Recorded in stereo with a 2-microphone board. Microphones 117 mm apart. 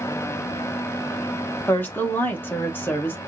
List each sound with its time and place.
1.7 s a woman speaking: 15° left (ahead or behind), 1.4 m